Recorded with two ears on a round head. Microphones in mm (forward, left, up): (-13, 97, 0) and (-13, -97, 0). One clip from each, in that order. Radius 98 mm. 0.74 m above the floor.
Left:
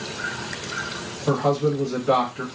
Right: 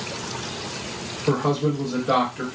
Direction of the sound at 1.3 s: 45° left (ahead or behind).